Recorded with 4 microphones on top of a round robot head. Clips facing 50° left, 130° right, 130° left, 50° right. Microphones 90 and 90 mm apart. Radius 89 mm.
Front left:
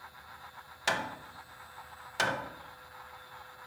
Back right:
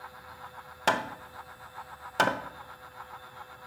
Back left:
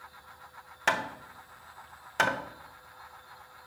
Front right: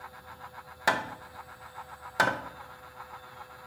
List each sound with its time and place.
0.9 s hammering: 125° right, 0.7 m